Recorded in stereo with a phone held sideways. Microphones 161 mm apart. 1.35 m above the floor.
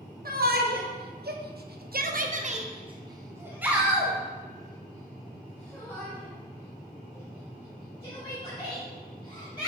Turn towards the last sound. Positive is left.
turn(degrees=25)  # may be behind; listen again after turning